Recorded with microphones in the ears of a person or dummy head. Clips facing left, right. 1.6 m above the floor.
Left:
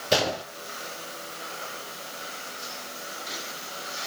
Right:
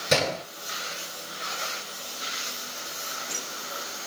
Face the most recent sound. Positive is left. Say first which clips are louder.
# even
turn(degrees=-75)  # may be behind; listen again after turning